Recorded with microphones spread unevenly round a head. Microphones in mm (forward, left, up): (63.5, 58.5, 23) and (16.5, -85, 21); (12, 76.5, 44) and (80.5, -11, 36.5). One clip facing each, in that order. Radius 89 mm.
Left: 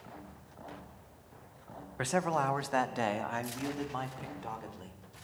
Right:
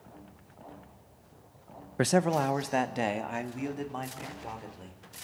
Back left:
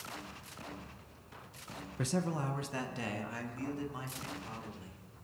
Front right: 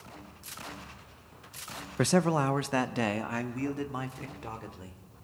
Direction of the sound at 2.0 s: 70° right.